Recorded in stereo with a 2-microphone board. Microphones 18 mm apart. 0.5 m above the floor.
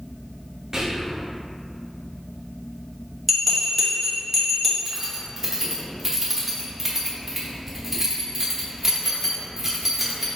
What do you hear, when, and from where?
0.7 s whispering: 30° right (ahead or behind), 0.8 m
3.3 s a bell: 15° left (ahead or behind), 1.0 m
4.8 s keys jangling: 15° right (ahead or behind), 0.7 m